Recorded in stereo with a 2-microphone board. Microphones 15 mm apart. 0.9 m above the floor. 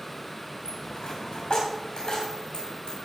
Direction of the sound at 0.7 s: 70° left (ahead or behind).